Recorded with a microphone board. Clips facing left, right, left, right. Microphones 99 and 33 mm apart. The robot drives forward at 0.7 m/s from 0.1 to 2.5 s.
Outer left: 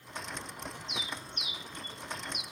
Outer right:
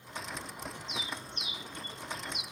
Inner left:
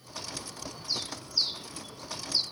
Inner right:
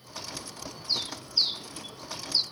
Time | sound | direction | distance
0.9 | a bird | 35° right (ahead or behind) | 2 m